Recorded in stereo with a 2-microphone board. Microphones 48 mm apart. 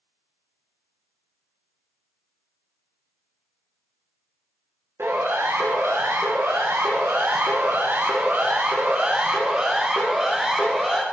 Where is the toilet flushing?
I don't hear a toilet flushing.